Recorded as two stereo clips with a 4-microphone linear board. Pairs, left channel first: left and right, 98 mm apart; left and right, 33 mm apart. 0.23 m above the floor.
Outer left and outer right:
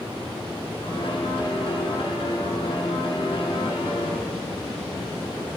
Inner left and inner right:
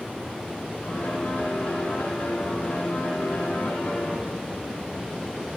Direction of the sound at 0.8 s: 60° left (ahead or behind).